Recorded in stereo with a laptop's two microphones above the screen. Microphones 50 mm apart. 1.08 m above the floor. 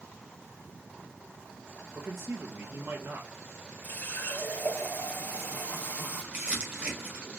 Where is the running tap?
40° left (ahead or behind), 1.5 m.